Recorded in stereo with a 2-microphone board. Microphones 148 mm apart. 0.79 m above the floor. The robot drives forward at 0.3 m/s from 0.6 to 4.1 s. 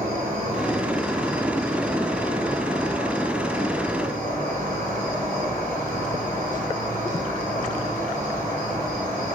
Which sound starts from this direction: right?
An insect, at 0.0 s.